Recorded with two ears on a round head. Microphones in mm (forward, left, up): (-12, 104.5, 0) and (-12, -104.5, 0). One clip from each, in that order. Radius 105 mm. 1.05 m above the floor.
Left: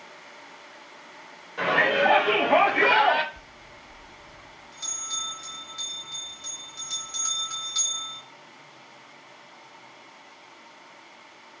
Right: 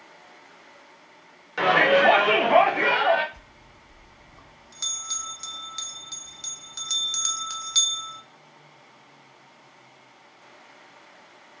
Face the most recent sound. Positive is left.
turn(degrees=-30)  # may be behind; listen again after turning